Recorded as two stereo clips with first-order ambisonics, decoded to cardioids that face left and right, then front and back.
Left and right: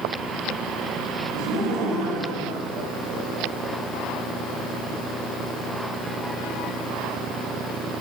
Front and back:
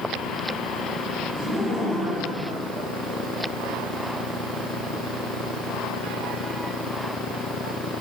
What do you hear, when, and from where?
1.3 s laughter: 100° right, 3.5 m; by 3.8 s 115° right, 2 m